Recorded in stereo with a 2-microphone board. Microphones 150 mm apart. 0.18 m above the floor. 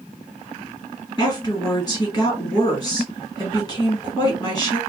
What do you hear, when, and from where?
1.2 s a woman speaking: 30° left (ahead or behind), 3 m